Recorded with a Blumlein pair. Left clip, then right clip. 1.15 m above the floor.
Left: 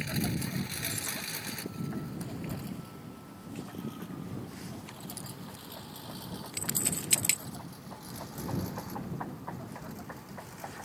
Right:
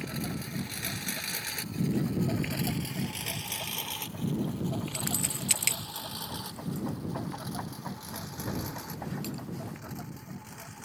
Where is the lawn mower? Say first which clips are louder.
Left 2 dB; 15° left; by 10.9 s 75° right.